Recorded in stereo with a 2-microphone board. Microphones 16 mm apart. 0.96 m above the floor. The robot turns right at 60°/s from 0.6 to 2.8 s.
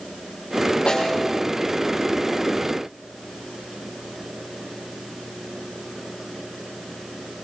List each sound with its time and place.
0.9 s a snare drum: 85° left, 8.5 m; by 1.3 s 70° left (ahead or behind), 8.5 m